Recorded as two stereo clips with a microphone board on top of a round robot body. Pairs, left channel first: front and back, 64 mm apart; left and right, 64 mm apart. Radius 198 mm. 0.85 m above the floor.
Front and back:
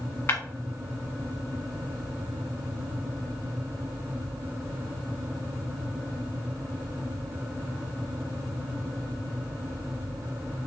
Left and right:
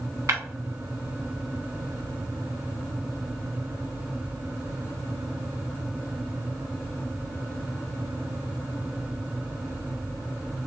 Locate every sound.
0.3 s breaking glass: 50° right, 1.3 m